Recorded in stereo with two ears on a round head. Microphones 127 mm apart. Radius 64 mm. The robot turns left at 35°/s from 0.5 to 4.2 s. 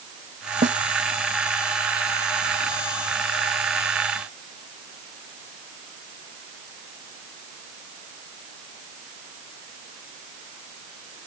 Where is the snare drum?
50° right (ahead or behind); by 0.8 s 55° right (ahead or behind).